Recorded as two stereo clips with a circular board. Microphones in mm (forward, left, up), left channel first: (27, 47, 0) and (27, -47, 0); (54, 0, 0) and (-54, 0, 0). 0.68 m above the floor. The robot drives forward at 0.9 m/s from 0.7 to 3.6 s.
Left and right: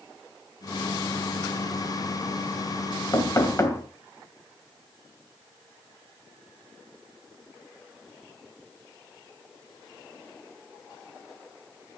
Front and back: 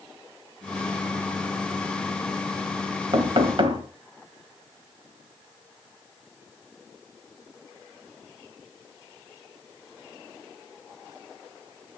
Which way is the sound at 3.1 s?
140° left.